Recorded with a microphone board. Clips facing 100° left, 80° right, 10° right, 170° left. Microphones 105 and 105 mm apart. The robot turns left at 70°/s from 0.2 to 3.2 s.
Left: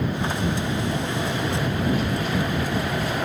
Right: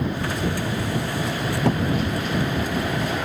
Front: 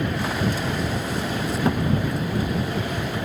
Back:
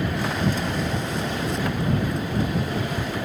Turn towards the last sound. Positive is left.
turn(degrees=180)